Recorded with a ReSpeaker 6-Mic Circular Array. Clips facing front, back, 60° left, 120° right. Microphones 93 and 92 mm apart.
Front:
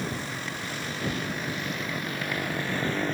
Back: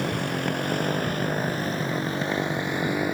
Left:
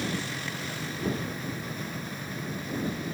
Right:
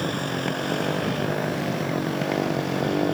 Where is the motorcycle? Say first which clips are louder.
Back 7 dB, right 7 dB; 155° right; by 3.1 s 100° right.